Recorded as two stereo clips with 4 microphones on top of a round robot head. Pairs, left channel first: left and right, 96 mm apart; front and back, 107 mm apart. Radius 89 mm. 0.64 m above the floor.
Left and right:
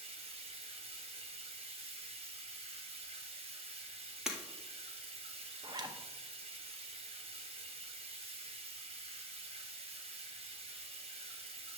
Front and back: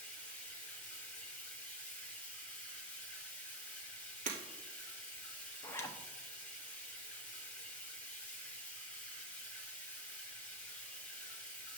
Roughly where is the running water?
Right.